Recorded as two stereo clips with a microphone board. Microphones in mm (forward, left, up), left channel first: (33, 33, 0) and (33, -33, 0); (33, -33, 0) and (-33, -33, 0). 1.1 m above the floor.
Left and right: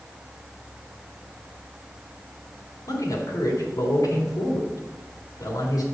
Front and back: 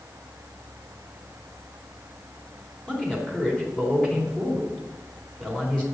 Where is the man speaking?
75° left, 3.5 m.